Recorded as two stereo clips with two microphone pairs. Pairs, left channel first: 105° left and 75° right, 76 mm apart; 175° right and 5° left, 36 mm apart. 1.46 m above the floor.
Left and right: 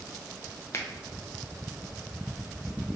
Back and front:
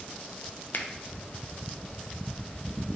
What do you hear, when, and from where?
0.7 s a finger snap: 160° left, 0.5 m